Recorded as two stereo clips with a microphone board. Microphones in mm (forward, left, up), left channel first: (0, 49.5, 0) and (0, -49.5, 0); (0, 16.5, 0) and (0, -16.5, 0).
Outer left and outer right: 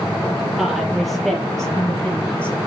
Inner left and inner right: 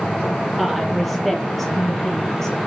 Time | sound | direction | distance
0.6 | a woman speaking | centre (ahead or behind) | 6 m